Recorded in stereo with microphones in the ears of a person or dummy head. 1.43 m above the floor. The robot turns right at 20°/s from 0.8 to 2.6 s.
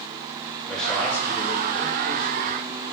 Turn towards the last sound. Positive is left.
turn(degrees=40)